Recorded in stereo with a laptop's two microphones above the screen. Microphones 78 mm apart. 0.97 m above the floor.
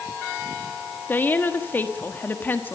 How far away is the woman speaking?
About 1.3 m.